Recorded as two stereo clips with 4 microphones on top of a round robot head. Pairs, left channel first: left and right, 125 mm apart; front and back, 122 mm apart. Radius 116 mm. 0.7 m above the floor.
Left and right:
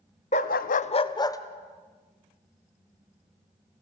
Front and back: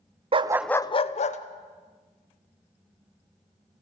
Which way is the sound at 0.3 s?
140° left.